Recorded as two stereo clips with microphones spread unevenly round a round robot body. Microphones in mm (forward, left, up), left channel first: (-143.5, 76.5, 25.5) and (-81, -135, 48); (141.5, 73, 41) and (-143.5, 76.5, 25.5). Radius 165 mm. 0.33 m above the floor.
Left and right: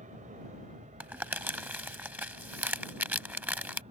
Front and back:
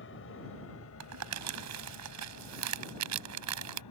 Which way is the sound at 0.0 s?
25° right.